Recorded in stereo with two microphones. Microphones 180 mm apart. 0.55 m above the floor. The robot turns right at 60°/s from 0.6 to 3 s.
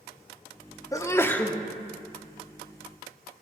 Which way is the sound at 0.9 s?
20° left (ahead or behind).